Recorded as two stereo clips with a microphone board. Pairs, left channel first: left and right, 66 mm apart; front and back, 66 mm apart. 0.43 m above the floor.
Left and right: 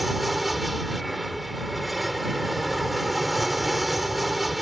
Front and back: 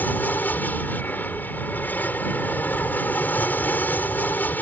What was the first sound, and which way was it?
An aircraft, 5° right.